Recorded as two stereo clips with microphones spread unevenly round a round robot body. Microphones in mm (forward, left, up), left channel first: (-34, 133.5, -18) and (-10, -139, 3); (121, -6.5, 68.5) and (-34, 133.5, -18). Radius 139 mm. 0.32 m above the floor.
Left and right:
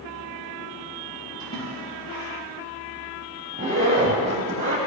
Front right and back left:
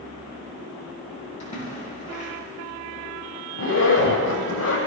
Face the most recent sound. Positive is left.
turn(degrees=-20)